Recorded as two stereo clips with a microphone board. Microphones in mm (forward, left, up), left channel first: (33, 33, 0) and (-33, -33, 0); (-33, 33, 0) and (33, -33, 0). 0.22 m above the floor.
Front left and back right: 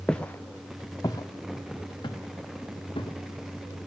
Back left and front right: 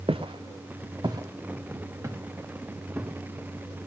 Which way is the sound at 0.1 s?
35° right.